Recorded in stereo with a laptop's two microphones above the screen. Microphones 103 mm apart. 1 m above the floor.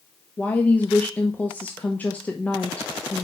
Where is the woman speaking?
15° left (ahead or behind), 0.9 m.